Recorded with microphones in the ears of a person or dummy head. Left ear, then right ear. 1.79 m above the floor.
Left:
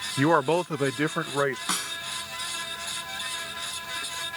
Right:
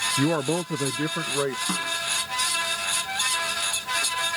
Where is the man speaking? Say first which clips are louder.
Left 3 dB; 35° left (ahead or behind); by 1.6 s 40° left (ahead or behind).